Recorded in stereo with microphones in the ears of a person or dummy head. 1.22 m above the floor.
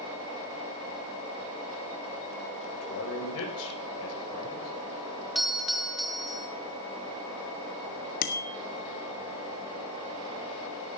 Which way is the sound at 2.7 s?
85° left.